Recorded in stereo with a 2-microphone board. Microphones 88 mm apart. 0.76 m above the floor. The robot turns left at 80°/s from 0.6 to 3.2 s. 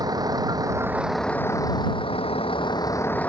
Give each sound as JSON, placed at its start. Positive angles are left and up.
{"t": 0.0, "sound": "a vehicle", "azimuth_deg": -135}